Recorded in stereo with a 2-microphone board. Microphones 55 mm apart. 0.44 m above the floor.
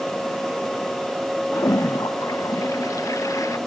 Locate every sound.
1.5 s a toilet flushing: 75° left (ahead or behind)